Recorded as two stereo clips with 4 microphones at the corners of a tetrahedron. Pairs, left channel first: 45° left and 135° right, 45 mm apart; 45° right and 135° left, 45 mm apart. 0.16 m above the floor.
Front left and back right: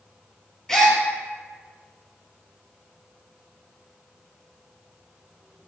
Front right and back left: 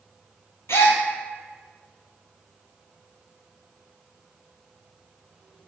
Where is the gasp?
35° right, 0.6 m.